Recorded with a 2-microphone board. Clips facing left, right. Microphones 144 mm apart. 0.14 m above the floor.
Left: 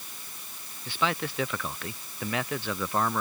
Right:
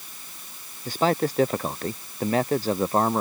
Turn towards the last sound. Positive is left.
turn(degrees=-35)  # may be behind; listen again after turning